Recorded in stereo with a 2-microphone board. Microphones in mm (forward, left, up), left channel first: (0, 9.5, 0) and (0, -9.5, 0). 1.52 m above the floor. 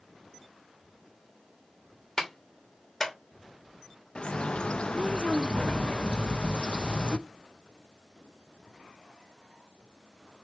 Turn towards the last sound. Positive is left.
turn(degrees=50)  # may be behind; listen again after turning